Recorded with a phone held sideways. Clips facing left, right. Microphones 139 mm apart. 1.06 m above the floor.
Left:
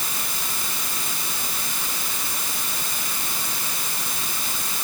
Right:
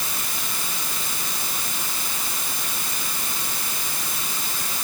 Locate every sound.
Only background noise.